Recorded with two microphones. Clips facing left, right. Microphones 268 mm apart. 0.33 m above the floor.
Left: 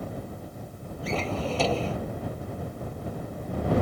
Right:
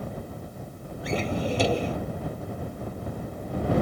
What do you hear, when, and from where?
1.0 s a drawer: 15° right (ahead or behind)